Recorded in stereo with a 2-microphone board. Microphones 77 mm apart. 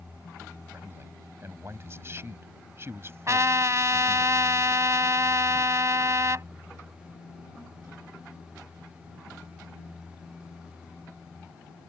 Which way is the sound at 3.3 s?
40° right (ahead or behind).